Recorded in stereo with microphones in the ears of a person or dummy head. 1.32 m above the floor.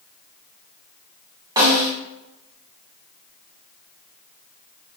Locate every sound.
1.6 s a snare drum: 20° right (ahead or behind), 0.8 m